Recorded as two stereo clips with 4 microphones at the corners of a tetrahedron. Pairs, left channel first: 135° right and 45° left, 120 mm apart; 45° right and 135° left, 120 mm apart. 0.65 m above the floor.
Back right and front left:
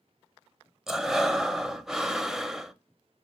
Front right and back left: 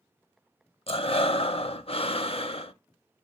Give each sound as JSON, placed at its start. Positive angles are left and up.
{"t": 0.9, "sound": "breathing", "azimuth_deg": -40, "distance_m": 0.5}